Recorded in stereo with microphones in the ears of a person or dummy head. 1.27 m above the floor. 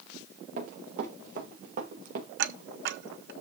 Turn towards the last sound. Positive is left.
turn(degrees=-55)  # may be behind; listen again after turning